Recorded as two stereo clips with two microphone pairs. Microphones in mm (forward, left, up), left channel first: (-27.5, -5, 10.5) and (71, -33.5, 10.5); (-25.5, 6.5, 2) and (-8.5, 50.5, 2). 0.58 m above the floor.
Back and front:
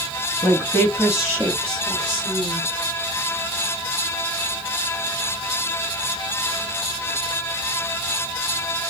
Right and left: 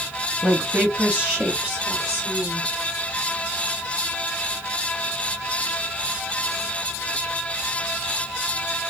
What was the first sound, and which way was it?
A woman speaking, 120° left.